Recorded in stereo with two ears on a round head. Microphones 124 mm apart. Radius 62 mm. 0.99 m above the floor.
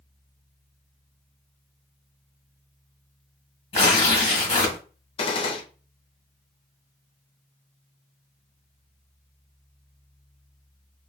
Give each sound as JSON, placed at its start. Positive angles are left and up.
{"t": 3.7, "sound": "tearing paper", "side_deg": 40, "distance_m": 1.5}
{"t": 5.2, "sound": "a gunshot", "side_deg": 40, "distance_m": 0.6}